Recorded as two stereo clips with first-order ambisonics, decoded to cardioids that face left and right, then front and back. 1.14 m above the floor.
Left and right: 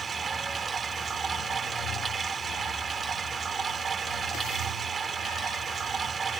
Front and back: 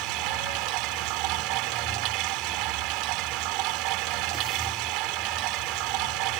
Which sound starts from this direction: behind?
Running water, at 0.0 s.